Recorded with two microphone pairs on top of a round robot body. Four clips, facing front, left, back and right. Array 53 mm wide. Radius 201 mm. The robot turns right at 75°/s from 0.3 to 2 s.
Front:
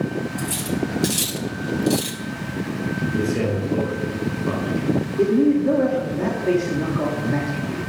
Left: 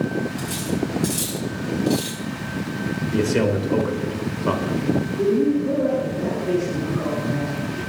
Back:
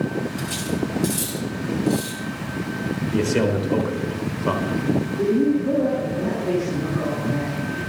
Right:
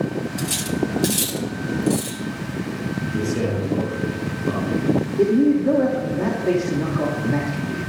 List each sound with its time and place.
0.4 s cutlery clinking: 105° right, 2 m; by 2.2 s 20° left, 2 m
3.1 s a man speaking: 135° left, 4 m
5.2 s a man speaking: 55° right, 3 m